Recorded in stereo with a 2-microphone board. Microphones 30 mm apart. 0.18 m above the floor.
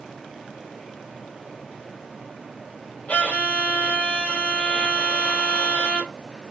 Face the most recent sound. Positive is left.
turn(degrees=55)  # may be behind; listen again after turning